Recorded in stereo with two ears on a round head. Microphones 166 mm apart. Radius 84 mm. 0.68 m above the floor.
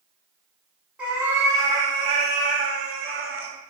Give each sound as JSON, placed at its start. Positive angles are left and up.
{"t": 1.0, "sound": "a cat meowing", "side_deg": -5, "distance_m": 1.1}